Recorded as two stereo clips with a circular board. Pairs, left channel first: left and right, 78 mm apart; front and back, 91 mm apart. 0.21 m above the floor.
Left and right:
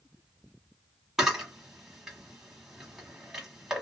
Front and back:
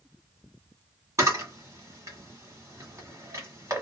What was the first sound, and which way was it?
A camera shutter, 170° right.